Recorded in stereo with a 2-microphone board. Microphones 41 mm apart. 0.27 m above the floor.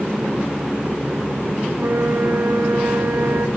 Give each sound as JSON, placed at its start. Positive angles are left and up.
{"t": 1.7, "sound": "a flute", "side_deg": -65, "distance_m": 3.0}